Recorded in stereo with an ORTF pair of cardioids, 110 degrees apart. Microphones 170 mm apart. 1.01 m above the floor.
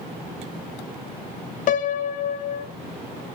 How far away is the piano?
About 0.5 m.